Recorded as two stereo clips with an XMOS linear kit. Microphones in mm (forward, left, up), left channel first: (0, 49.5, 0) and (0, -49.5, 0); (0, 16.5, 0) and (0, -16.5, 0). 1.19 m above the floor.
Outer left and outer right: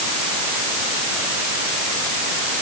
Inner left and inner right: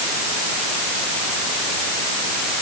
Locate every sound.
Only background noise.